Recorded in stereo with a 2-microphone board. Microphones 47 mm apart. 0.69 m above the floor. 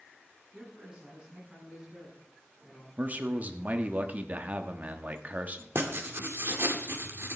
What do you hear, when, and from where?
0.5 s a man speaking: 20° right (ahead or behind), 7.5 m; by 2.9 s 5° right (ahead or behind), 6.5 m
3.0 s a man speaking: 35° right (ahead or behind), 1.1 m
5.8 s writing: 60° right (ahead or behind), 1.7 m